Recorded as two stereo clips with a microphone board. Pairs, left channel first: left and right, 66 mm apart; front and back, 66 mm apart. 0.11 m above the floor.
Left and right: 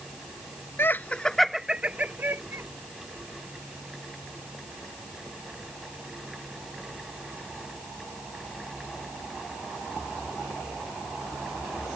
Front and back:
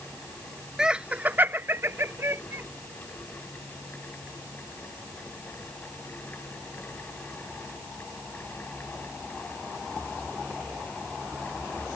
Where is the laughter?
105° left; by 2.6 s 135° right.